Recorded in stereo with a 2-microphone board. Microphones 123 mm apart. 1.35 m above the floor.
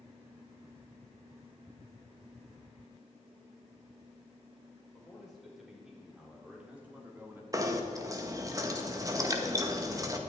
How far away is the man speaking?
About 5 m.